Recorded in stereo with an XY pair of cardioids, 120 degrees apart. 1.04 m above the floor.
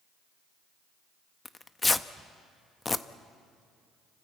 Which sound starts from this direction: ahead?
Tearing paper, at 1.4 s.